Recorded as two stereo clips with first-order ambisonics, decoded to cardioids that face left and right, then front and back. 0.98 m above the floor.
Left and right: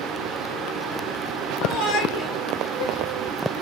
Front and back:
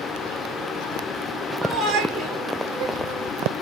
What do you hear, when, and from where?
1.6 s a shout: 130° left, 5 m